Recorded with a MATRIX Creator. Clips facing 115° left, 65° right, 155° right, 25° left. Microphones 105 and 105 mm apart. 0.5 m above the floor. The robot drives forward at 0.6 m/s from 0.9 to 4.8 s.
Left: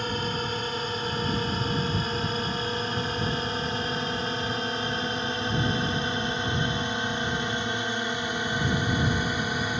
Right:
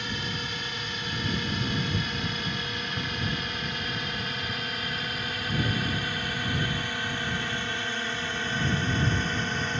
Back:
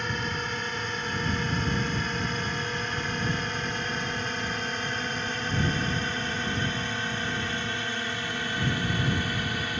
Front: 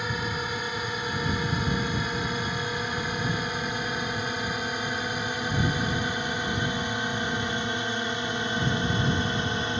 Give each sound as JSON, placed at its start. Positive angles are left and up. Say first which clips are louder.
{"t": 0.0, "sound": "a drone", "louder": "left 5 dB, front 1 dB", "azimuth_deg": 100}